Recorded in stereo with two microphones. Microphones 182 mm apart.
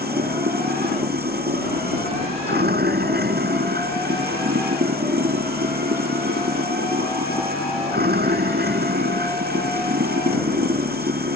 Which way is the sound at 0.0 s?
65° right (ahead or behind).